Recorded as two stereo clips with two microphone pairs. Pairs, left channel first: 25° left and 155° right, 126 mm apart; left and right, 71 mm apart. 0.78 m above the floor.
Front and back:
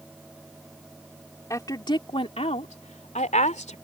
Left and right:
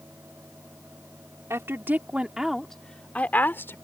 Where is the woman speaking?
40° right; by 3.8 s 40° left.